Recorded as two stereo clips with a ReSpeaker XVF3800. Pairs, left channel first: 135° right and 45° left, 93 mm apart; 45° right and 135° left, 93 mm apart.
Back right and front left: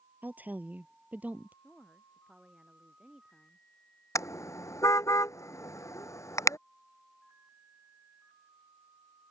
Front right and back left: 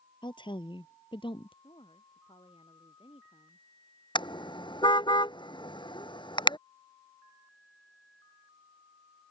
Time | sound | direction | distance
0.2 | a woman speaking | 25° right | ?
1.6 | a woman speaking | 40° right | ?
4.2 | a car horn | 80° right | ?